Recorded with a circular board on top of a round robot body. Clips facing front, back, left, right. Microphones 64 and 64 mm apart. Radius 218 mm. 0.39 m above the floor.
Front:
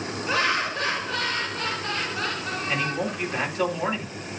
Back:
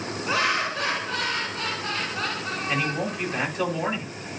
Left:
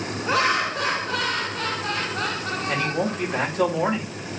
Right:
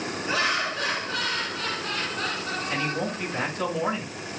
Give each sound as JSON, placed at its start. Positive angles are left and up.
{"t": 0.3, "sound": "laughter", "azimuth_deg": 110, "distance_m": 4.5}
{"t": 2.7, "sound": "a man speaking", "azimuth_deg": 95, "distance_m": 3.5}